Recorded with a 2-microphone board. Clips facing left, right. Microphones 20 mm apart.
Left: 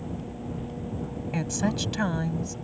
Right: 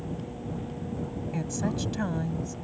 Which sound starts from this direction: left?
A woman speaking, at 1.3 s.